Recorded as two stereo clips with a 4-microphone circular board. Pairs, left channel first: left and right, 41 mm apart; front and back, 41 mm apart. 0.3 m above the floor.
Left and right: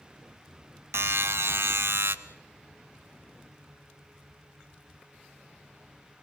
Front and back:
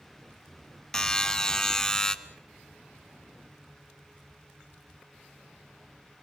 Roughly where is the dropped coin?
I don't hear a dropped coin.